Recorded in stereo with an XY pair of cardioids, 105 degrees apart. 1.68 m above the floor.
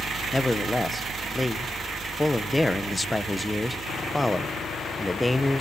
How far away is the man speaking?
About 1.2 m.